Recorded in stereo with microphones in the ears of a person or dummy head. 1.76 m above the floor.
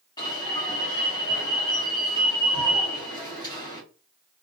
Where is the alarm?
25° left (ahead or behind), 1.1 m.